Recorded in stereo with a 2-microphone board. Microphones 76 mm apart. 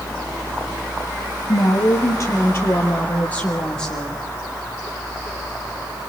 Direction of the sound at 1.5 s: 55° left (ahead or behind).